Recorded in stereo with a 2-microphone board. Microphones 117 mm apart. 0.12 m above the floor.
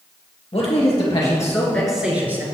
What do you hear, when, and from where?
0.5 s a man speaking: 55° left (ahead or behind), 2 m; by 2.5 s 20° right (ahead or behind), 1.7 m